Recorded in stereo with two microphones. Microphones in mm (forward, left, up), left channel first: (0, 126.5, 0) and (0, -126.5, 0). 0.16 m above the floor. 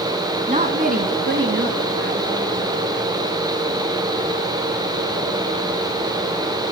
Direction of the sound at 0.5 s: 25° right (ahead or behind).